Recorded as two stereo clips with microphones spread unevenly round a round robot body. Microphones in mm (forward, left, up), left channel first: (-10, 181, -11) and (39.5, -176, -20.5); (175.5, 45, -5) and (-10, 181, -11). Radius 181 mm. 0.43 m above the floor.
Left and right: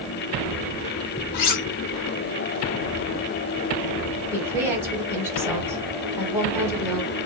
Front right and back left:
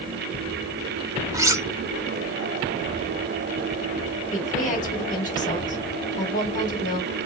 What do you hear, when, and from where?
1.3 s cutlery clinking: 70° left, 0.7 m
4.3 s a woman speaking: 5° right, 1.4 m